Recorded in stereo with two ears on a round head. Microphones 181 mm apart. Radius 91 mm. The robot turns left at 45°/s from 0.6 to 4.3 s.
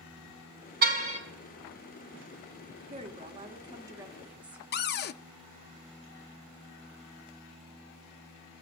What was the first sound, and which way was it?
A car horn, 50° right (ahead or behind).